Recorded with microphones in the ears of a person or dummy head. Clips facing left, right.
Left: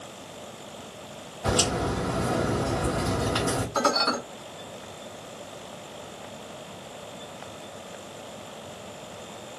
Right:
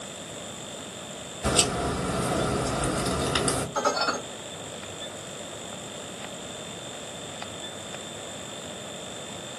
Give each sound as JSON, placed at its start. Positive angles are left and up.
{"t": 1.4, "sound": "a crack", "side_deg": -35, "distance_m": 1.9}
{"t": 3.8, "sound": "dishes clattering", "side_deg": 50, "distance_m": 1.4}